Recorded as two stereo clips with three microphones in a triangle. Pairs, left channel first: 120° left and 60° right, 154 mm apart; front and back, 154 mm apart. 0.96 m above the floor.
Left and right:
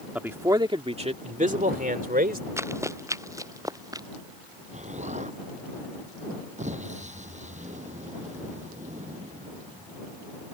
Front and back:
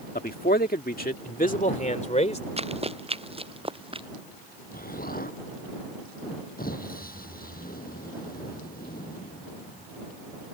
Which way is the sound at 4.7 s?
20° right.